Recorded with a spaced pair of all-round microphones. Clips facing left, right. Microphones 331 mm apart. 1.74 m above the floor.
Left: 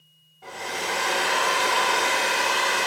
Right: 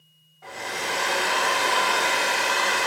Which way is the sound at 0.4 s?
40° left (ahead or behind).